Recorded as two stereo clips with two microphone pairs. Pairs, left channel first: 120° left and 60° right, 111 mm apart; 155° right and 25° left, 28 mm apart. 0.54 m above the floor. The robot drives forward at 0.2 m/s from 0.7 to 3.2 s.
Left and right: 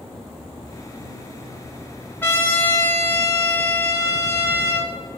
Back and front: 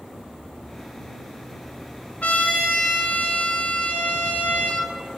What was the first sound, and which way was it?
A trumpet, 170° right.